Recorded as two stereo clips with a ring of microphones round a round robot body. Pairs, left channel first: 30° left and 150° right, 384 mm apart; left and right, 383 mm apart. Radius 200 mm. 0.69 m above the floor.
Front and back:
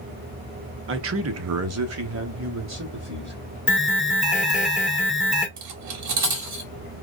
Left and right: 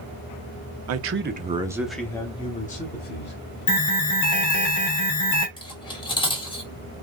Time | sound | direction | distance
0.9 | a man speaking | 110° right | 0.8 m
3.7 | an alarm | 120° left | 2 m
5.6 | cutlery clinking | 165° left | 1.1 m